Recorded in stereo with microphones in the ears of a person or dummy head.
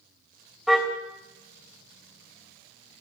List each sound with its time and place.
0.7 s a car horn: 5° left (ahead or behind), 3 m